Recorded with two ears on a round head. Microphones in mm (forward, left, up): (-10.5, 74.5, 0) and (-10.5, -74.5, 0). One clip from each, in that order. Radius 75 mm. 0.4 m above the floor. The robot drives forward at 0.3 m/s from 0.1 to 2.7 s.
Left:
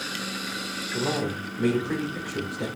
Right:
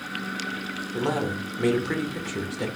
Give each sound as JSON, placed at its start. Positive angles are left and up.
{"t": 0.9, "sound": "a man speaking", "side_deg": -30, "distance_m": 1.1}